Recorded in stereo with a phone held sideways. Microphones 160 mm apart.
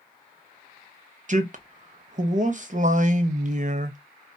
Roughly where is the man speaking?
Right.